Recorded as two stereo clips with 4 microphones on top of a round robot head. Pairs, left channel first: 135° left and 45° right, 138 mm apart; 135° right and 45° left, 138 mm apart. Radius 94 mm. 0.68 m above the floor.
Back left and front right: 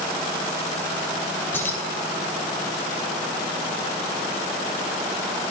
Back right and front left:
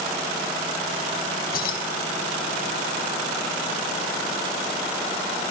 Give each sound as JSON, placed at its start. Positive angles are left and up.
{"t": 1.5, "sound": "keys jangling", "azimuth_deg": -150, "distance_m": 2.5}